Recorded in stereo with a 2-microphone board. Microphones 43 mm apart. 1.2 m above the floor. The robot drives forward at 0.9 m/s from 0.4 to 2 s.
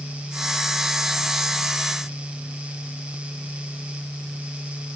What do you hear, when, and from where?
Only background noise.